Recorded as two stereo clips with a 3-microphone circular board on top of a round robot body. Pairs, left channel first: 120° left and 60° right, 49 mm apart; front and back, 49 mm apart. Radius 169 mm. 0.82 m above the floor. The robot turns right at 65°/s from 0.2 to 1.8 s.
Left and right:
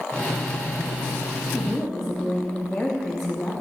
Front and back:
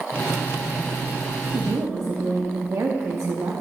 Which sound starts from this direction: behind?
A woman speaking, at 1.5 s.